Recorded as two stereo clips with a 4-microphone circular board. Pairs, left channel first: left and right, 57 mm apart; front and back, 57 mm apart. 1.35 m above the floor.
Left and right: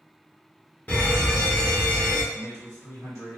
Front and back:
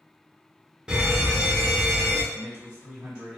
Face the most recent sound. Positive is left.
turn(degrees=110)